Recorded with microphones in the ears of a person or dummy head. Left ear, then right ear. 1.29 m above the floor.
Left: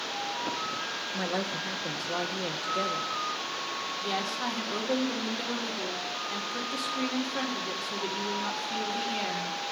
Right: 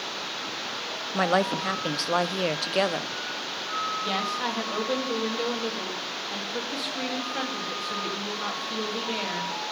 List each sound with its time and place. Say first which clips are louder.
1.1 s a woman speaking: right 10 dB; 70° right (ahead or behind), 0.5 m
4.0 s a woman speaking: right 3 dB; 15° right (ahead or behind), 1.9 m